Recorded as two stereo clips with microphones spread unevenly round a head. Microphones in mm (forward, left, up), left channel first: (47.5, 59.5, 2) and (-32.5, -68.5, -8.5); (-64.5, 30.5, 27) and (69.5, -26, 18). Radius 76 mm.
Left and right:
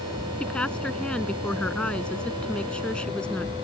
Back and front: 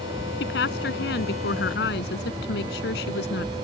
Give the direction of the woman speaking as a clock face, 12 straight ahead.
7 o'clock.